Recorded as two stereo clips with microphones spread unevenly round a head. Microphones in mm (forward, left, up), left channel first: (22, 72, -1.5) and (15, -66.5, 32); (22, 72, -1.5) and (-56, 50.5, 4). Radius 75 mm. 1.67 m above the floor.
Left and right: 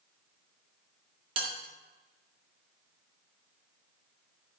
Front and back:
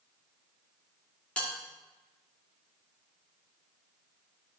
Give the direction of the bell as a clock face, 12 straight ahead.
2 o'clock.